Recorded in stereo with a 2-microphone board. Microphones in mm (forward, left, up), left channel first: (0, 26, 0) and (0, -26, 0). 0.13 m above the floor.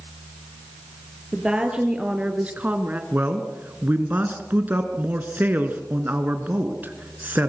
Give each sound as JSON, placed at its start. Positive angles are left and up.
{"t": 1.3, "sound": "a woman speaking", "side_deg": -15, "distance_m": 3.5}
{"t": 3.1, "sound": "a man speaking", "side_deg": -35, "distance_m": 2.0}